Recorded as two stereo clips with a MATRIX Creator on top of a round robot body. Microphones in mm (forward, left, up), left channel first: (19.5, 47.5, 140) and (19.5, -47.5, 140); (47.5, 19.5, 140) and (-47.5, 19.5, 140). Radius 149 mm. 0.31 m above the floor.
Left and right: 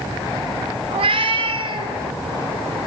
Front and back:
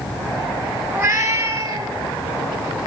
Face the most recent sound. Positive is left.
turn(degrees=-135)